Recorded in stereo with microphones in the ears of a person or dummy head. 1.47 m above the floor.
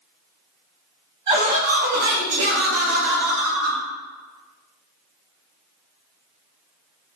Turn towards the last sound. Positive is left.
turn(degrees=-55)  # may be behind; listen again after turning